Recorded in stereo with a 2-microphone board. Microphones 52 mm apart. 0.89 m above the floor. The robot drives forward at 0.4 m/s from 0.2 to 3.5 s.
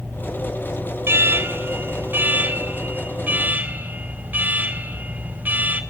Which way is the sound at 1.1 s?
45° right (ahead or behind).